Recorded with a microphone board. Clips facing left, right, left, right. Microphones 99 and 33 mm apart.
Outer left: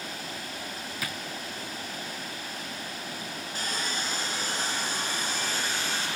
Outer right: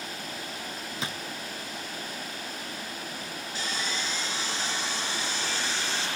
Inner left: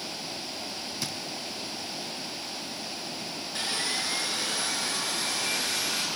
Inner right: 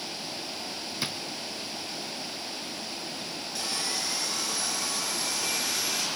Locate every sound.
1.0 s a drawer: 25° right (ahead or behind), 0.5 m
3.5 s sawing: 45° left (ahead or behind), 3.5 m